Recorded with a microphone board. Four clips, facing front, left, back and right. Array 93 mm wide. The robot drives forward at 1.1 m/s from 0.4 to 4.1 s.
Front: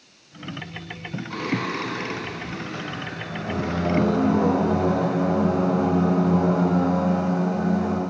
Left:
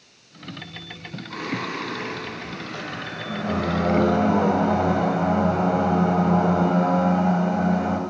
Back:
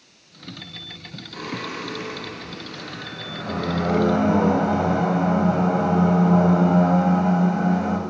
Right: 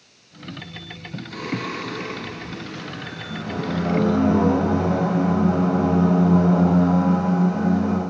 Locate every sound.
1.3 s singing: 25° left, 2.5 m; by 8.0 s 135° left, 1.4 m